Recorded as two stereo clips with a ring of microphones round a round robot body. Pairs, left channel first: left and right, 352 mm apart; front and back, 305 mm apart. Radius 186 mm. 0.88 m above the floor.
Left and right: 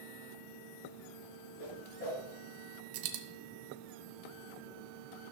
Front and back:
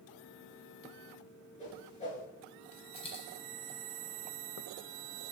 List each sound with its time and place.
1.6 s a whoosh: 70° left, 6 m
2.9 s a dropped coin: 75° right, 1.5 m